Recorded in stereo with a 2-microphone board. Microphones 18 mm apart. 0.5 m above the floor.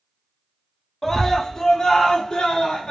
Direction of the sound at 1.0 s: 20° left (ahead or behind).